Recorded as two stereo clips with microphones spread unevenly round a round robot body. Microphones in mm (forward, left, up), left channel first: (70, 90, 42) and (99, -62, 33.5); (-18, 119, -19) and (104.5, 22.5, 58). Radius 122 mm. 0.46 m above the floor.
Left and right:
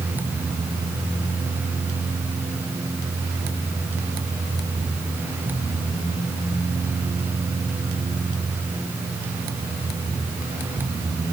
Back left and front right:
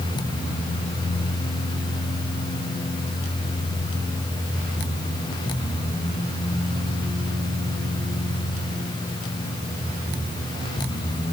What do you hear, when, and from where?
Only background noise.